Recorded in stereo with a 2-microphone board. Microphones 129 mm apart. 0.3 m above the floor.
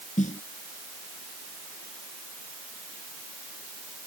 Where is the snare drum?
75° left (ahead or behind).